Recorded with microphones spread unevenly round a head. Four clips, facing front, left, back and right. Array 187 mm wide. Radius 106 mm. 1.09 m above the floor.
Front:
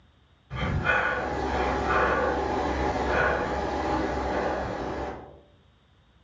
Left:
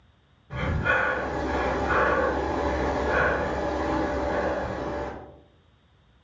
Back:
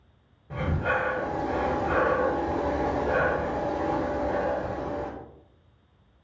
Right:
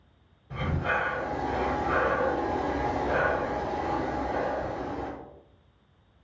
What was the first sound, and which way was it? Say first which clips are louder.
Breathing: left 3 dB, front 1 dB; straight behind.